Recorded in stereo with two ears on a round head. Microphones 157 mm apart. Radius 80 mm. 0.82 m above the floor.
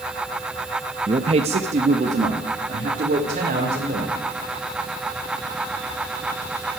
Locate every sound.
1.1 s a man speaking: 25° right (ahead or behind), 0.7 m; by 4.2 s 45° right (ahead or behind), 3.5 m